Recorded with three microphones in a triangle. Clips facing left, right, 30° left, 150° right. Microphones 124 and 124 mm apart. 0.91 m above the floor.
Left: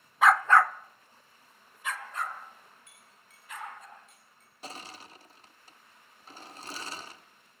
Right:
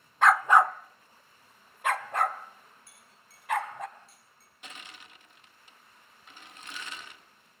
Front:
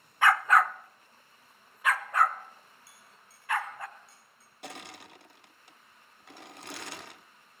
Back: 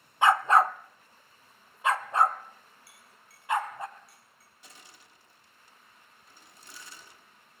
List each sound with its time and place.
0.2 s a dog barking: 175° left, 0.6 m; by 3.9 s 80° right, 2 m
2.9 s a clink: 35° right, 5.5 m
4.6 s crushing: 40° left, 0.8 m